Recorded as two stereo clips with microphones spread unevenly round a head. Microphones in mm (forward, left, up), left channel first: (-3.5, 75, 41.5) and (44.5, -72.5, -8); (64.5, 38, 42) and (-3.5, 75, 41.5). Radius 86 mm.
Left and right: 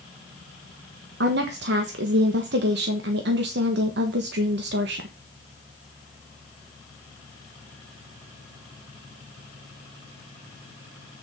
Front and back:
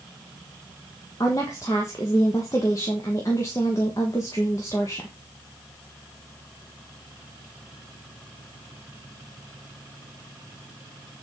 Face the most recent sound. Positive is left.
turn(degrees=-95)